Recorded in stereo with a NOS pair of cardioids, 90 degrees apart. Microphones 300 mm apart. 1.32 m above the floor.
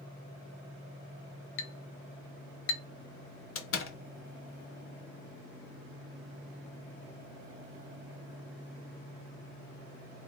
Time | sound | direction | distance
1.6 | a clink | 45° left | 0.7 m
3.5 | a door slam | 45° left | 0.7 m